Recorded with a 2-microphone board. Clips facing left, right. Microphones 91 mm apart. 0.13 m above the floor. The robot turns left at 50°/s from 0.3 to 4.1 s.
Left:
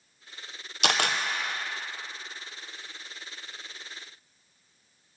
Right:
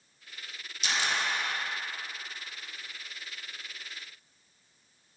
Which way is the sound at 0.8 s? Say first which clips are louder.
Left 5 dB; 80° left.